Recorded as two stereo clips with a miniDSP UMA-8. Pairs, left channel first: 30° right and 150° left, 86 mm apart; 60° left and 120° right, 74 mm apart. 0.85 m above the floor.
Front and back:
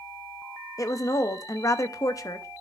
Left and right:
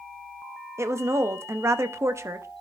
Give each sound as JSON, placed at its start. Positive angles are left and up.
{"t": 0.8, "sound": "a woman speaking", "azimuth_deg": -75, "distance_m": 0.6}